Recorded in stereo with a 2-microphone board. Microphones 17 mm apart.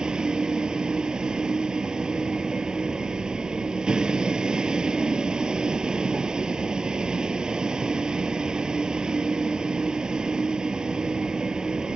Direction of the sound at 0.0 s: 75° right (ahead or behind).